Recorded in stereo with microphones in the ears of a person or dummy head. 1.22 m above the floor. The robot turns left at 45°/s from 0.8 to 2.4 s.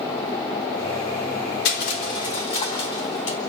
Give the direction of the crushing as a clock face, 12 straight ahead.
10 o'clock.